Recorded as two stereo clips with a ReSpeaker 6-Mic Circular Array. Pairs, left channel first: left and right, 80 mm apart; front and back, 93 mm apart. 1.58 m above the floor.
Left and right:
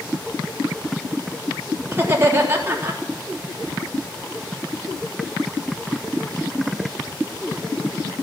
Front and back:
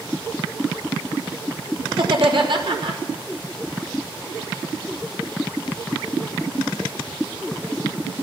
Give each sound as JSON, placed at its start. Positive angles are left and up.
{"t": 1.9, "sound": "laughter", "azimuth_deg": -150, "distance_m": 3.5}